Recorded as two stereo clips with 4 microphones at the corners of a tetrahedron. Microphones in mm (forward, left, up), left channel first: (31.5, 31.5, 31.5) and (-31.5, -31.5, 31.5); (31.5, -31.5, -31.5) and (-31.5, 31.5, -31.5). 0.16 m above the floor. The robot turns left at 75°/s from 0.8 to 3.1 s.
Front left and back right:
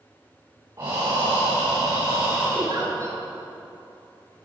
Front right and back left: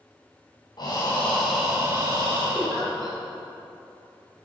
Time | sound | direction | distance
0.8 | breathing | 85° right | 3.5 m
2.5 | a giggle | 150° right | 1.9 m